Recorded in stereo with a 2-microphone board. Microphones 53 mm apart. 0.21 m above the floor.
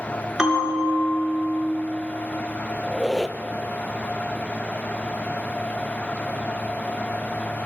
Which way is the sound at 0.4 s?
15° right (ahead or behind).